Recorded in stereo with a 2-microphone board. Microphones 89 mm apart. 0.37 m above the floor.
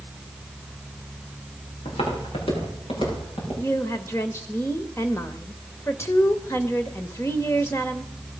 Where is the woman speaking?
30° left (ahead or behind), 1.0 m.